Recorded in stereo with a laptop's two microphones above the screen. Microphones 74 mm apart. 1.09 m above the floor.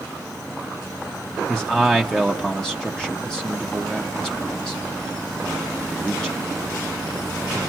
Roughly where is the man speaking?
Centre.